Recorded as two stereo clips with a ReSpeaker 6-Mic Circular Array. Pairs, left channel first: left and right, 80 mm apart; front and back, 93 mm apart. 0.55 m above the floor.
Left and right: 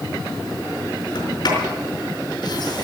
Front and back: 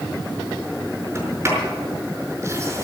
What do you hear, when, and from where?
1.1 s a sliding door: 120° left, 5 m